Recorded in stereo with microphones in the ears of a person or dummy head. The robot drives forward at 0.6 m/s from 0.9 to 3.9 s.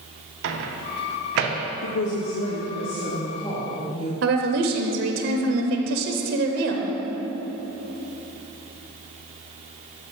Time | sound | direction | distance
0.4 | a microwave | 75° right (ahead or behind) | 0.8 m
1.8 | a woman speaking | 75° left (ahead or behind) | 0.7 m
4.2 | a woman speaking | 65° right (ahead or behind) | 0.7 m